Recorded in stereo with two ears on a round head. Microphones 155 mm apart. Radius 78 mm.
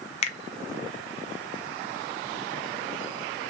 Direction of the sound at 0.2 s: 35° left (ahead or behind).